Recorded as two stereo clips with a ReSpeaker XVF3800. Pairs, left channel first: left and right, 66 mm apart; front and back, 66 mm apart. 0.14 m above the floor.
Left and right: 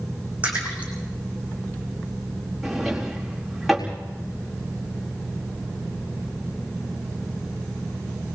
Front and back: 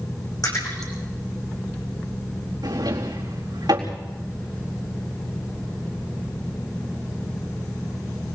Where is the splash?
20° right, 6.5 m.